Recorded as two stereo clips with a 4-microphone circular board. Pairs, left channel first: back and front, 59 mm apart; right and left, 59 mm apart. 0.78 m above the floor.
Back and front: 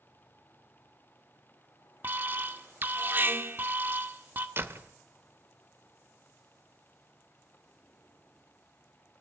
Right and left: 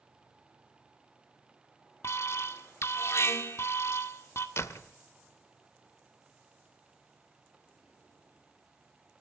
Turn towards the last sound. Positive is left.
turn(degrees=-50)